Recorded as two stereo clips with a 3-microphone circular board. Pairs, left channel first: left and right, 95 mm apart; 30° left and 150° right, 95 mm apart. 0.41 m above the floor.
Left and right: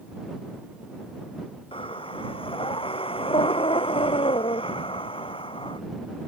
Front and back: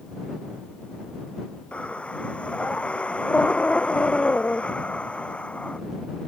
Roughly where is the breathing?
Left.